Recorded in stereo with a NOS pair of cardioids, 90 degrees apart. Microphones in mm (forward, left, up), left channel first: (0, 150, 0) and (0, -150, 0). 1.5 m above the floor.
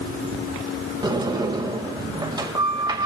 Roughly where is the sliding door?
Ahead.